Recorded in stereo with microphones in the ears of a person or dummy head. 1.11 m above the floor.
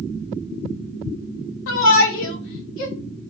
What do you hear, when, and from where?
1.7 s a shout: 80° left, 2.5 m